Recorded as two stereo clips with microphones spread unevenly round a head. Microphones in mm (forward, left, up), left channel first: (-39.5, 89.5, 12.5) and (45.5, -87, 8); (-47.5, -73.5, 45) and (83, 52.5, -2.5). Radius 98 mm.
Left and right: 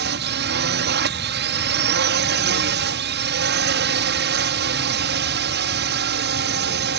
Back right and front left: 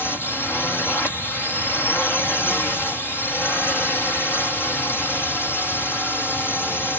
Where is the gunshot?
No gunshot in this recording.